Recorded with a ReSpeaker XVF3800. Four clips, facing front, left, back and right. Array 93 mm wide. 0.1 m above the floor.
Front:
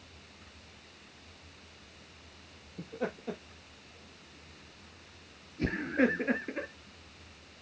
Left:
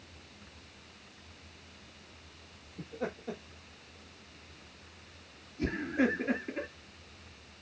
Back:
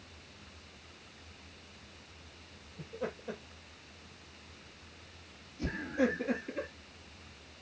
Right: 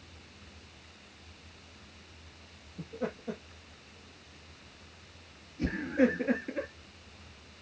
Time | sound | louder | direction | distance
2.8 | laughter | right 1 dB, front 3 dB | 5° left | 3 m